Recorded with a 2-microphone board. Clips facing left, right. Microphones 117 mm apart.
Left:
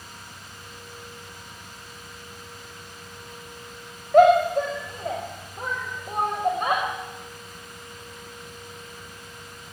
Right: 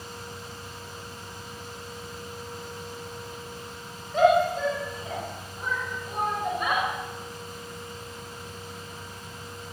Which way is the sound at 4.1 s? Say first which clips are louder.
Left 5 dB; 65° left (ahead or behind).